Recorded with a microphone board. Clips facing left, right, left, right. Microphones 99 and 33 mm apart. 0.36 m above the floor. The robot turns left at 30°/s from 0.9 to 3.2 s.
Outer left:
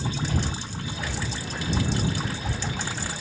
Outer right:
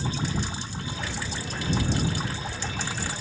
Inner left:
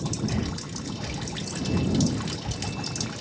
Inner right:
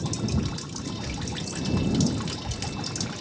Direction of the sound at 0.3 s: 55° left (ahead or behind).